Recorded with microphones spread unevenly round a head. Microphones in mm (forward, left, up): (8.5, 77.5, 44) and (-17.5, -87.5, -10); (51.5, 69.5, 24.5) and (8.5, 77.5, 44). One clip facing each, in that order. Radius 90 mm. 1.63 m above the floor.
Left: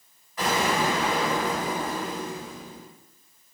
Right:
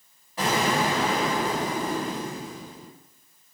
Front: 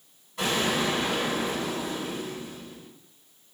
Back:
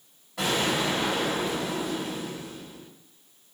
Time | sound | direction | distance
0.4 | an explosion | 160° right | 1.8 m